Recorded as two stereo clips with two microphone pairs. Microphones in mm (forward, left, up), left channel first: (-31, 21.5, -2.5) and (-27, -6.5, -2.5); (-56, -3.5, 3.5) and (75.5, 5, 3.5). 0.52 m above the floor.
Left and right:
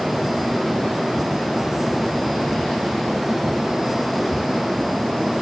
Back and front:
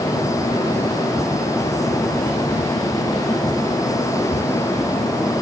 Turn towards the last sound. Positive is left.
No sound to turn to.